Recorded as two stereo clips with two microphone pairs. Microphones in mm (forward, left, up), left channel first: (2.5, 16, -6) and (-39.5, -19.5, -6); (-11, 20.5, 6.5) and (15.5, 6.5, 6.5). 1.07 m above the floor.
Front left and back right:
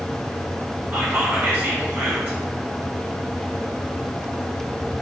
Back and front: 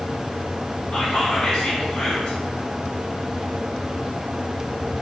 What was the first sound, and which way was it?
Whispering, 150° right.